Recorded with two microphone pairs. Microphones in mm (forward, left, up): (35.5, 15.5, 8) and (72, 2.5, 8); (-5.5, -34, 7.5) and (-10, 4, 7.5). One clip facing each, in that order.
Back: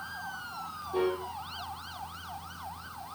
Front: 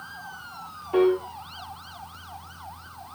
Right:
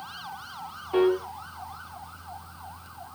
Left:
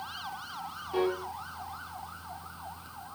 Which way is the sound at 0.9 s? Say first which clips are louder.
Front 9 dB, right 7 dB; 20° right.